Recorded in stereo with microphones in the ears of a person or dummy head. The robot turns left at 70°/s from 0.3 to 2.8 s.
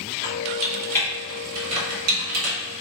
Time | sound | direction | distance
0.2 | typing on a keyboard | 60° left (ahead or behind) | 1.8 m